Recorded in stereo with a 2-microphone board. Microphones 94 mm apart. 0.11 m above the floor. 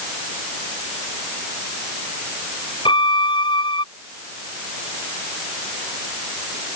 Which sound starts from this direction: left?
A violin, at 2.9 s.